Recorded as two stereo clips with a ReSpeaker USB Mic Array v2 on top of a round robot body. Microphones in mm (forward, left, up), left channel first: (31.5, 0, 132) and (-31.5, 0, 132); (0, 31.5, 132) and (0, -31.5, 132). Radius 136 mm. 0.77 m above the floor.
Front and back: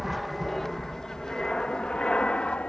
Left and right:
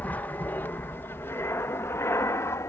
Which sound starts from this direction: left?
An aircraft, at 0.0 s.